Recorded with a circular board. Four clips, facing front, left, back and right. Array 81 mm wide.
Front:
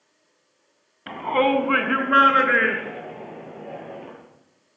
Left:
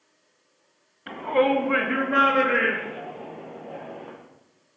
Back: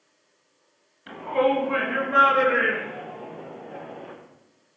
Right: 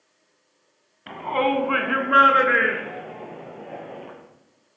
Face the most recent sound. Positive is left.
turn(degrees=-50)